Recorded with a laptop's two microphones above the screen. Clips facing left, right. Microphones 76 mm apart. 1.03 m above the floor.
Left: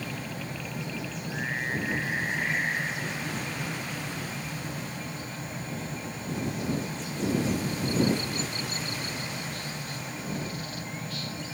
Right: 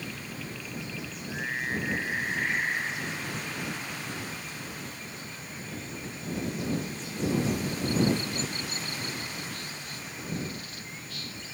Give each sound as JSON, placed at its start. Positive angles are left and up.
{"t": 0.0, "sound": "a fan", "side_deg": 50}